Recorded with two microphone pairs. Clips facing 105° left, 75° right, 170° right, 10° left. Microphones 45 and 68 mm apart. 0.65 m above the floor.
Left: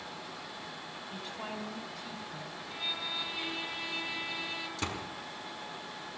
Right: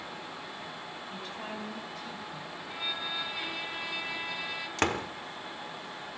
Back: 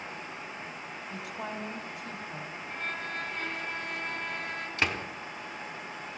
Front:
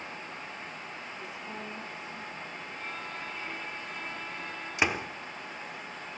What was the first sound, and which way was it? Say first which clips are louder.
A woman speaking: even, back 7 dB; 165° right.